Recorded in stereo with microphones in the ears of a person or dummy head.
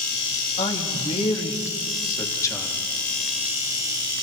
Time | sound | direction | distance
0.6 | a man speaking | 35° left (ahead or behind) | 2.5 m